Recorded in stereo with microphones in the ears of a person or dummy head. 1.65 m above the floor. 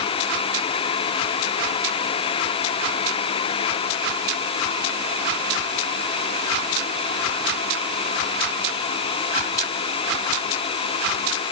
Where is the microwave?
I don't hear a microwave.